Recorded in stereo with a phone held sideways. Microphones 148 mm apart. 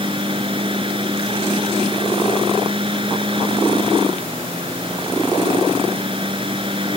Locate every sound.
0.0 s a fan: 35° right (ahead or behind)